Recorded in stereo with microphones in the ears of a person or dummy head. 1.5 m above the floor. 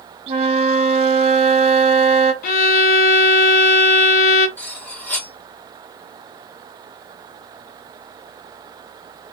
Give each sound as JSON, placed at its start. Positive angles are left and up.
{"t": 0.3, "sound": "a flute", "side_deg": -40, "distance_m": 0.9}
{"t": 2.4, "sound": "a violin", "side_deg": 55, "distance_m": 0.7}
{"t": 4.6, "sound": "cutlery clinking", "side_deg": 10, "distance_m": 0.9}